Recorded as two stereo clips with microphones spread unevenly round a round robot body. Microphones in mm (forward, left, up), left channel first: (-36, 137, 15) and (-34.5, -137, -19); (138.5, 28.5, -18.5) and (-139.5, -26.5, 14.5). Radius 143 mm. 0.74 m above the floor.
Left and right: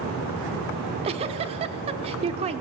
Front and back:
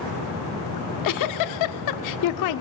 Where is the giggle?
15° right, 0.7 m.